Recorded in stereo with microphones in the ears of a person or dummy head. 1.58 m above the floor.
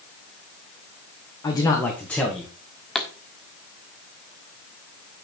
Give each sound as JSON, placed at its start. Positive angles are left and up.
{"t": 1.4, "sound": "a man speaking", "side_deg": 20, "distance_m": 1.3}
{"t": 3.0, "sound": "a pop", "side_deg": 5, "distance_m": 1.4}